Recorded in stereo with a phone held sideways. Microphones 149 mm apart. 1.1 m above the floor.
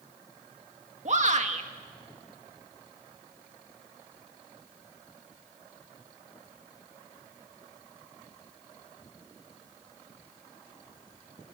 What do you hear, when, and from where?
1.1 s a shout: 50° right (ahead or behind), 2 m